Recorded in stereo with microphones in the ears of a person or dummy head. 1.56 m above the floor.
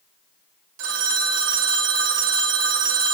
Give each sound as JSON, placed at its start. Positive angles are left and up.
{"t": 0.8, "sound": "a phone ringing", "side_deg": -60, "distance_m": 0.9}